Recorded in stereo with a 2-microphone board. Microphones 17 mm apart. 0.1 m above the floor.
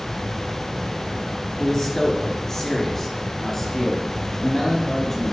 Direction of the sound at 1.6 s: 25° left (ahead or behind).